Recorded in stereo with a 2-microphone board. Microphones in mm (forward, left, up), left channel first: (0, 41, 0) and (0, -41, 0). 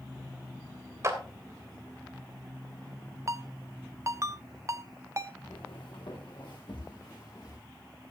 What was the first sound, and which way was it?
A clap, 40° right (ahead or behind).